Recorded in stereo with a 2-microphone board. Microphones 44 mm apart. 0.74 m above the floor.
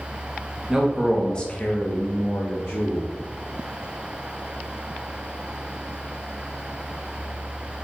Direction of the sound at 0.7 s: 15° right (ahead or behind).